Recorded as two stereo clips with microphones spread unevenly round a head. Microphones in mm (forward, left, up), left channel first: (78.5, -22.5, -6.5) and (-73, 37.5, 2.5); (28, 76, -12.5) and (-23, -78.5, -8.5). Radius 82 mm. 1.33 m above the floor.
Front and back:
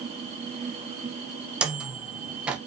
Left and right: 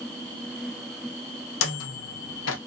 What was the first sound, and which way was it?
A microwave, 75° left.